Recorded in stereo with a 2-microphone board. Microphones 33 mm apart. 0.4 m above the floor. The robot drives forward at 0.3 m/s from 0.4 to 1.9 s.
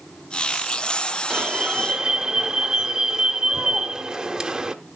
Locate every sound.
1.3 s an alarm: 25° right (ahead or behind), 1.0 m